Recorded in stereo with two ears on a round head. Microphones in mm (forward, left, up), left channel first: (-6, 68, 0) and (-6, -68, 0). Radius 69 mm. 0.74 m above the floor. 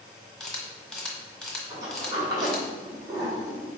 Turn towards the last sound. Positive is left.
turn(degrees=-25)  # may be behind; listen again after turning